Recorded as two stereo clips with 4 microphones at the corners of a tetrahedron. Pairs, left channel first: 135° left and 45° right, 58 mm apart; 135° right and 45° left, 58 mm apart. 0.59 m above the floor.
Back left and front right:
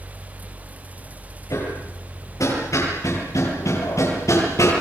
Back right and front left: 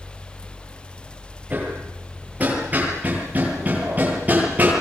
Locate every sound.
1.5 s hammering: 110° left, 9 m